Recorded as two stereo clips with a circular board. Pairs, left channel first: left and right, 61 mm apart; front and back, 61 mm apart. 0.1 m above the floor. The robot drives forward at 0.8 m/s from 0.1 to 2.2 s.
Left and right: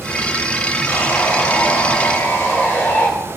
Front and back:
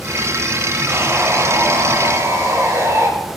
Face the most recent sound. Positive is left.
turn(degrees=145)